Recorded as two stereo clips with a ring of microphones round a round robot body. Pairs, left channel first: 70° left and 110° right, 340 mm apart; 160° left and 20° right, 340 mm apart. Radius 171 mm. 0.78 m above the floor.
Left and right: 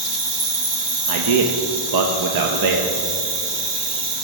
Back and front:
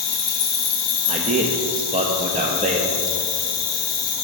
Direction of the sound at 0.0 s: 170° right.